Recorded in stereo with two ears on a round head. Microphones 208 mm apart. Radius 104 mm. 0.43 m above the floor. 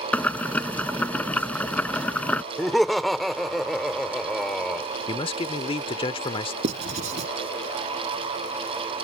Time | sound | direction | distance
0.1 | boiling | 5° left (ahead or behind) | ?
2.6 | laughter | centre (ahead or behind) | ?
5.1 | a man speaking | 25° left (ahead or behind) | ?
6.6 | writing | 30° right (ahead or behind) | ?